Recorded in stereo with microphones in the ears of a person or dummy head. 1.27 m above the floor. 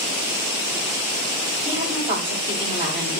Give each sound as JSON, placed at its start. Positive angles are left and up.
{"t": 1.6, "sound": "a woman speaking", "side_deg": -10, "distance_m": 6.0}